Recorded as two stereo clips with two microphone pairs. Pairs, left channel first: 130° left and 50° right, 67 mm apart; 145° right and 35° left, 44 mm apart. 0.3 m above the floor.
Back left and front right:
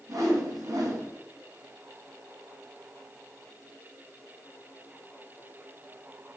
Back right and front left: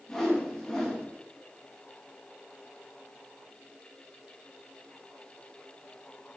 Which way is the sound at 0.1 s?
65° right.